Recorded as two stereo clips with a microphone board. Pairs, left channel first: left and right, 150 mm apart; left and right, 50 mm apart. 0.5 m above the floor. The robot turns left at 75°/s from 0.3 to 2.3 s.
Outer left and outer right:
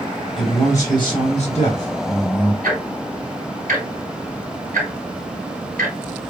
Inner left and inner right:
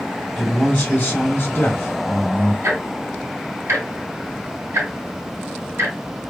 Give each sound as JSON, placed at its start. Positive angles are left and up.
{"t": 0.4, "sound": "a man speaking", "azimuth_deg": -175, "distance_m": 1.8}
{"t": 2.6, "sound": "ticking", "side_deg": -70, "distance_m": 1.7}